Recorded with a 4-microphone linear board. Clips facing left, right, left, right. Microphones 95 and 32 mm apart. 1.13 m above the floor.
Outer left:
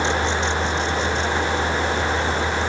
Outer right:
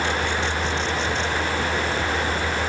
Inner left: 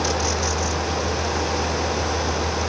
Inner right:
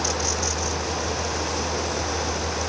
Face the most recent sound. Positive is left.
No sound to turn to.